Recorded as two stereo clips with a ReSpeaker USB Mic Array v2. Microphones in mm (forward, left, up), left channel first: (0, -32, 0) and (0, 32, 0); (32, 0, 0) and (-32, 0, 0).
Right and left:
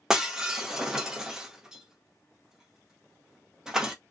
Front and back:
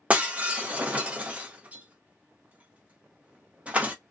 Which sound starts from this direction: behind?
Breaking glass, at 0.1 s.